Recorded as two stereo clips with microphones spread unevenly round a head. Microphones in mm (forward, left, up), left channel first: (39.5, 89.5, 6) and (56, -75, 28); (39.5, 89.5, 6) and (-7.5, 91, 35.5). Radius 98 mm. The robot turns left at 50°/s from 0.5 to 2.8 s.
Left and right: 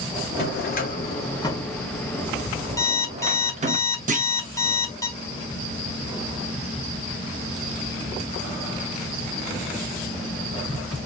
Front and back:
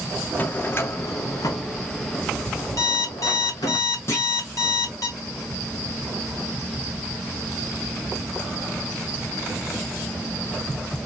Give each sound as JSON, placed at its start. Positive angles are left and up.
{"t": 0.4, "sound": "a drawer", "azimuth_deg": 70, "distance_m": 1.3}
{"t": 2.8, "sound": "an alarm clock", "azimuth_deg": 20, "distance_m": 2.0}
{"t": 4.1, "sound": "a clunk", "azimuth_deg": -40, "distance_m": 1.4}